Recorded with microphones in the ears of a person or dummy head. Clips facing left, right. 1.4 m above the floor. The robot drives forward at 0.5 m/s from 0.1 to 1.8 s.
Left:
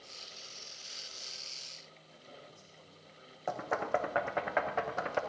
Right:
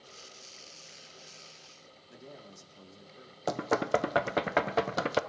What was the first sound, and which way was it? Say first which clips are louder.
A man speaking: right 6 dB; 80° right.